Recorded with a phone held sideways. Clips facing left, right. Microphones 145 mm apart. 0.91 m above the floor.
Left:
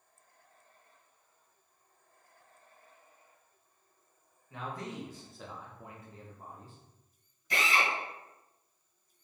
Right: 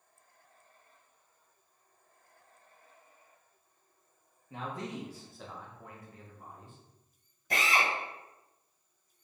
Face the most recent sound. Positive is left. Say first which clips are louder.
# right 1 dB
turn(degrees=-50)  # may be behind; listen again after turning